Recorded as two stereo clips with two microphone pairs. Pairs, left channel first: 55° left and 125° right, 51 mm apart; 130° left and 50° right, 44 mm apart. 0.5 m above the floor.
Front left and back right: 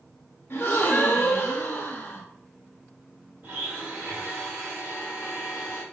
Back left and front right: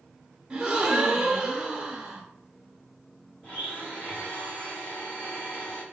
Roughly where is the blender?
Behind.